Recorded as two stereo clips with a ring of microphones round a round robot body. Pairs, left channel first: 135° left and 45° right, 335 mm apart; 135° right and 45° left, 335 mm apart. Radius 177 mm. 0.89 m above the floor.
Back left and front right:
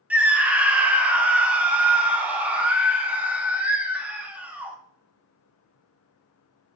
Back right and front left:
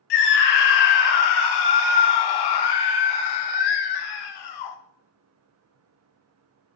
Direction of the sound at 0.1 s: 130° right.